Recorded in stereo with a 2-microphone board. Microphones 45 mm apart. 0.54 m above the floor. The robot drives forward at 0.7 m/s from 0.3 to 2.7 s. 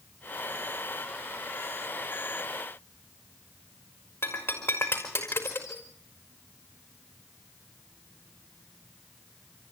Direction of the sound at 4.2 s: 65° left (ahead or behind).